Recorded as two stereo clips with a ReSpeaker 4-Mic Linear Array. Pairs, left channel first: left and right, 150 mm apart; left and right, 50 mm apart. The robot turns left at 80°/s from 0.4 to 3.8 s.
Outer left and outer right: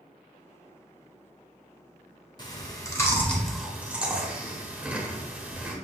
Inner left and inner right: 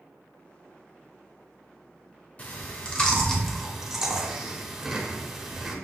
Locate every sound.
2.4 s chewing: 30° left (ahead or behind), 0.9 m; by 5.8 s 10° right (ahead or behind), 0.9 m